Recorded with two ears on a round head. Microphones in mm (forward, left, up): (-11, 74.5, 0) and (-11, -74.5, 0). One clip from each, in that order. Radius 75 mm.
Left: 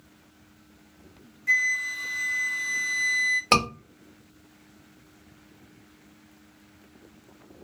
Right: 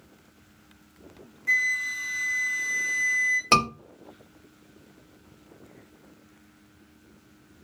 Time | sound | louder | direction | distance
1.5 | a flute | left 1 dB | centre (ahead or behind) | 0.5 m
3.5 | a scream | right 1 dB | 5° left (ahead or behind) | 1.5 m